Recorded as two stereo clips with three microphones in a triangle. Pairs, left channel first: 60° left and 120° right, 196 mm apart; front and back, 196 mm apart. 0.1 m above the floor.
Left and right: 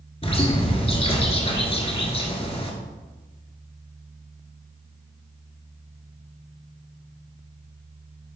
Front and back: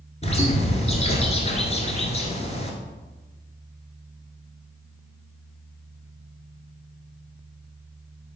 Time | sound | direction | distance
0.2 | a bird | 25° left | 1.5 m